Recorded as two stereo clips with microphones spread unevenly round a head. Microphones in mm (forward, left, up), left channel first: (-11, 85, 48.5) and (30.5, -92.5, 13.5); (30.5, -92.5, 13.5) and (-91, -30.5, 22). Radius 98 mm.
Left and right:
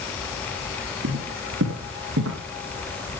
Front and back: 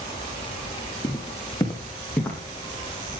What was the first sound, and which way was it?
Footsteps, 90° right.